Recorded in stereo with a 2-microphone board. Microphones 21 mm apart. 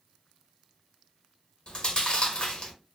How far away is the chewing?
About 0.9 m.